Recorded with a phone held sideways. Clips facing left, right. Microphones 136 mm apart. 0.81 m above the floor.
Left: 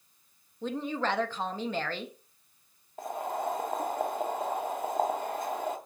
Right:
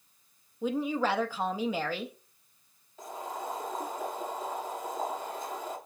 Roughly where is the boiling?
Left.